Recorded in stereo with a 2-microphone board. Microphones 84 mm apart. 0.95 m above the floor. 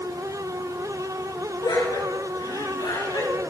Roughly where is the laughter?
Left.